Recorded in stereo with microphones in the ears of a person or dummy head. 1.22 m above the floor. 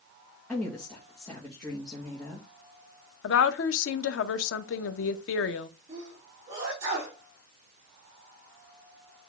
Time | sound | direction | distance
0.5 | a woman speaking | centre (ahead or behind) | 1.7 m
3.2 | a woman speaking | 75° left (ahead or behind) | 0.8 m
5.9 | a sneeze | 30° right (ahead or behind) | 4 m